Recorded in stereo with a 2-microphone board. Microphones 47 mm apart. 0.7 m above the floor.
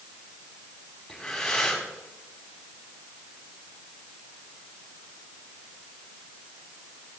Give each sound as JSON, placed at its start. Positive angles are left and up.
{"t": 1.1, "sound": "breathing", "side_deg": 10, "distance_m": 5.0}